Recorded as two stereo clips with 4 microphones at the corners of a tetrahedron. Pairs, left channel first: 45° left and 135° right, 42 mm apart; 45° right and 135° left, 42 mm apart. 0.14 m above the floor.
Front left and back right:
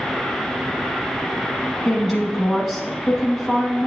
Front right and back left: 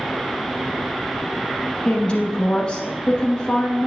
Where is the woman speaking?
35° right, 1.1 m.